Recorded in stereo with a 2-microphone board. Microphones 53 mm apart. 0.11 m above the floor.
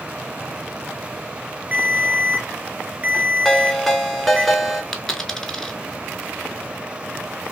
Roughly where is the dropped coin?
Centre.